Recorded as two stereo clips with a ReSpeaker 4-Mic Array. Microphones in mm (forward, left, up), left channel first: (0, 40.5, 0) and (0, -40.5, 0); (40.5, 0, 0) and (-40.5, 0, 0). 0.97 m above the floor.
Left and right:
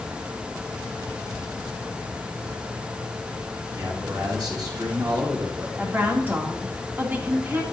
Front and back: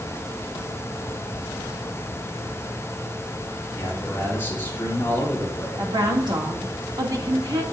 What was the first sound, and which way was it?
A man speaking, 60° right.